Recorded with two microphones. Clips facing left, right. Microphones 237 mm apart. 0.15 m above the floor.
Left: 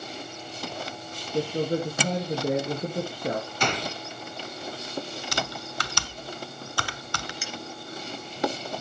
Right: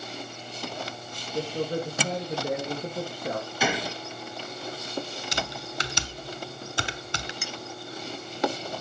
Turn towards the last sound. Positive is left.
turn(degrees=-55)  # may be behind; listen again after turning